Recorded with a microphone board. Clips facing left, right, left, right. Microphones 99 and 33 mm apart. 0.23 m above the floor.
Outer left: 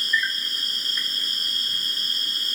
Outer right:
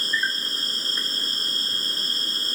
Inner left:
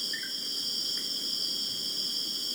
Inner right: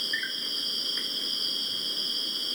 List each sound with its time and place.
0.0 s an insect: 35° right (ahead or behind)